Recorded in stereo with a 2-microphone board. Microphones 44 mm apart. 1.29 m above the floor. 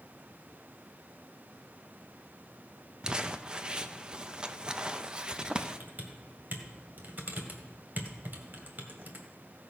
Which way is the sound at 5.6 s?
45° right (ahead or behind).